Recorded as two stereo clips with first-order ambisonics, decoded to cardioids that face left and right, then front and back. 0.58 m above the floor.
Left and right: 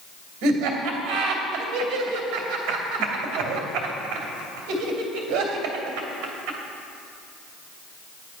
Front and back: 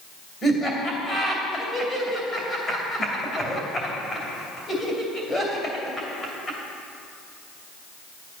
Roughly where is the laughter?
Right.